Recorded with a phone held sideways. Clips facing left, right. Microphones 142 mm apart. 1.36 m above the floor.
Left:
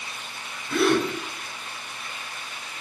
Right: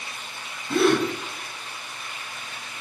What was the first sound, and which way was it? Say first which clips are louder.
A gasp: right 2 dB; 35° right (ahead or behind).